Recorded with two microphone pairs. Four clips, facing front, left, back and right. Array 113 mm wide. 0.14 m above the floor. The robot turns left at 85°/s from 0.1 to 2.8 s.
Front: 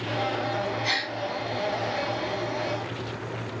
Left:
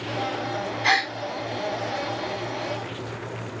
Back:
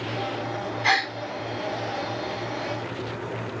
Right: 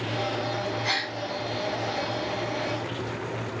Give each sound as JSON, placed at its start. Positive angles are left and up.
{"t": 0.8, "sound": "a gasp", "azimuth_deg": 130, "distance_m": 2.5}